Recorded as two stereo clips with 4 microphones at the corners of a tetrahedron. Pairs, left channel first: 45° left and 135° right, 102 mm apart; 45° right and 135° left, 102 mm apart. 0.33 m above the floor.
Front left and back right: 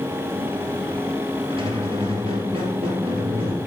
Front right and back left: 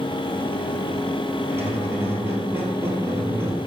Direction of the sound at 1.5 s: 155° right.